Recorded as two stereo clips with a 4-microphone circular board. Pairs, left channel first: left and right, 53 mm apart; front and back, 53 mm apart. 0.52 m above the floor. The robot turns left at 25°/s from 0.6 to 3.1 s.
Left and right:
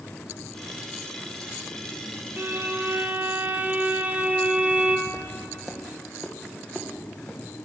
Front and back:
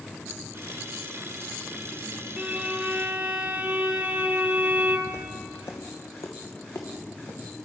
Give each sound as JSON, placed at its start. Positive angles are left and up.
{"t": 2.4, "sound": "a violin", "azimuth_deg": -120, "distance_m": 0.8}
{"t": 5.1, "sound": "footsteps", "azimuth_deg": -15, "distance_m": 1.3}